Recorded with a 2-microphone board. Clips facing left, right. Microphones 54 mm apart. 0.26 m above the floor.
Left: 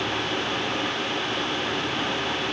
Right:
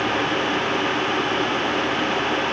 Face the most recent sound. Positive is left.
No sound to turn to.